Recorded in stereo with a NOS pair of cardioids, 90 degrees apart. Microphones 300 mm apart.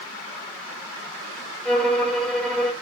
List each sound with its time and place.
1.6 s a violin: 5° left, 1.3 m